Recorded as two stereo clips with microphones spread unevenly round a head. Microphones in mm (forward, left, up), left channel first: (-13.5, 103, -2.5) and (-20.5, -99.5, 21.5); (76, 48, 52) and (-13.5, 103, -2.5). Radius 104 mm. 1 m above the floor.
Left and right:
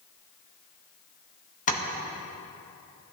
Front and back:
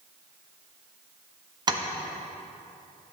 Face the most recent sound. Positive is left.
turn(degrees=135)